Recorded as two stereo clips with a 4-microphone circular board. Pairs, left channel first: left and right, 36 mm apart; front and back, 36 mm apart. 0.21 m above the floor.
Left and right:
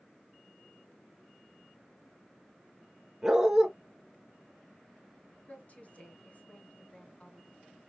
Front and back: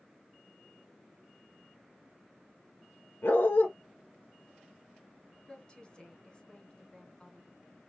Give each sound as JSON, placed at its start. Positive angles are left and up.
{"t": 3.2, "sound": "a dog barking", "azimuth_deg": -10, "distance_m": 1.1}
{"t": 5.5, "sound": "a woman speaking", "azimuth_deg": 60, "distance_m": 2.0}